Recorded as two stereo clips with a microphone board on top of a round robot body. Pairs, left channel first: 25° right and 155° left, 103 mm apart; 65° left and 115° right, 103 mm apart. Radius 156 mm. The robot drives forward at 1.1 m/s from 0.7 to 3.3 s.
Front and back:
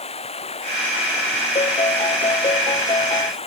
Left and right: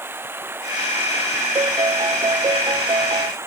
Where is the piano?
60° right; by 3.3 s 65° right.